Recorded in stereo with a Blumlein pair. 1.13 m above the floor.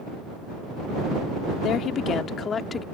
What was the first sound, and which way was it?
A woman speaking, 30° left.